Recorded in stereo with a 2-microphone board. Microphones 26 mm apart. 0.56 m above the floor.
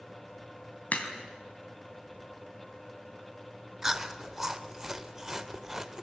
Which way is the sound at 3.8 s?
15° right (ahead or behind).